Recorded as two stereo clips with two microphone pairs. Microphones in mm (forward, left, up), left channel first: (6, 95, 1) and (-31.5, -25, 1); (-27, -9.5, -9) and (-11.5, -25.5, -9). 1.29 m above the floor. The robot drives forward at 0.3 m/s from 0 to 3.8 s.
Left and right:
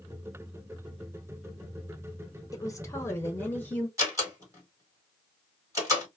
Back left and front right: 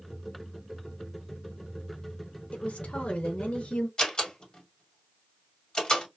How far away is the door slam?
About 1.8 m.